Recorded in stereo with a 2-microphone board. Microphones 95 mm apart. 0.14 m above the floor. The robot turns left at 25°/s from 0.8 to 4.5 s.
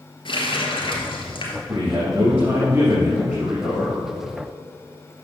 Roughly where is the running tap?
Left.